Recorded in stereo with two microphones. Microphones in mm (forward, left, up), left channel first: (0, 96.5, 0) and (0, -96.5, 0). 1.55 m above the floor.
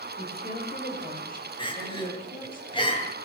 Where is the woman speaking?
55° left (ahead or behind), 7.5 m; by 2.6 s 45° left (ahead or behind), 10 m.